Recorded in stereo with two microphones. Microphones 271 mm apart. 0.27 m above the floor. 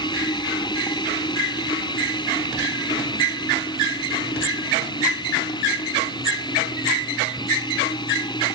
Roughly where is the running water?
Centre.